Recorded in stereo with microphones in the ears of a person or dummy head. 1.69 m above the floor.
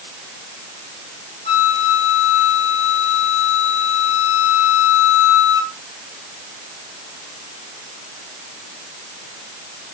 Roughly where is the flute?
Centre.